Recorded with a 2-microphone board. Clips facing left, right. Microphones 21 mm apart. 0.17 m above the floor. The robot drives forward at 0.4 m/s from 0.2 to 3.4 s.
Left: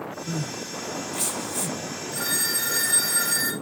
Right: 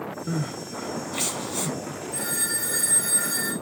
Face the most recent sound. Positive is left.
turn(degrees=40)  # may be behind; listen again after turning